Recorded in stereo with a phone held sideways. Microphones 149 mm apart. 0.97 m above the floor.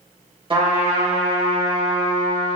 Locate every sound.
0.5 s a trumpet: 35° right (ahead or behind), 2.5 m